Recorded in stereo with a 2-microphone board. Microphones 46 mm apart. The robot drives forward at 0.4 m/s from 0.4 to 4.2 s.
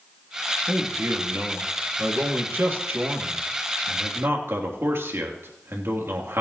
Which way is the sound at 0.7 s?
60° right (ahead or behind).